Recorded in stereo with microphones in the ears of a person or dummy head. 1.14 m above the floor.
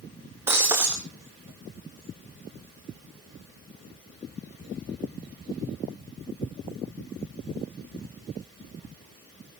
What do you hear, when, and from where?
0.5 s breaking glass: 15° right (ahead or behind), 3 m